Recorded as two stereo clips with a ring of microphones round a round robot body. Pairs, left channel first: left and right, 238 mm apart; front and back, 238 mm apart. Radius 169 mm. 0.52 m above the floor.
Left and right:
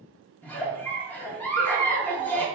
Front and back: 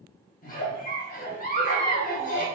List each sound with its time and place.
0.4 s a giggle: 10° left, 0.9 m